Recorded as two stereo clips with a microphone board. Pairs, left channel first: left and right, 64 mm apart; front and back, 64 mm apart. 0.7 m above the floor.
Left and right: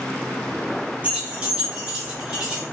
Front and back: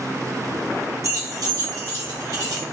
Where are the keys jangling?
155° right, 0.7 m; by 2.6 s 170° right, 1.7 m.